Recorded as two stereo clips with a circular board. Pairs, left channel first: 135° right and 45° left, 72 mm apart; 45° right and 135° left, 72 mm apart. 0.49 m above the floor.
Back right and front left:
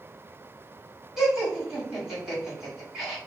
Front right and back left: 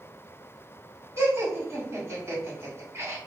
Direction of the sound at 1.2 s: 125° left.